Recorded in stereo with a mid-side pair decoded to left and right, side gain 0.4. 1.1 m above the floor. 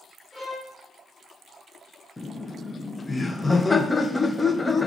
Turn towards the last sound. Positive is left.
turn(degrees=25)